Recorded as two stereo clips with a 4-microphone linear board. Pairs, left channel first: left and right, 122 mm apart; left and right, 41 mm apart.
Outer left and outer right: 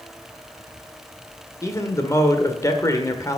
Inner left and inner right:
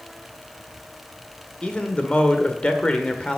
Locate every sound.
1.6 s a man speaking: 30° left (ahead or behind), 1.5 m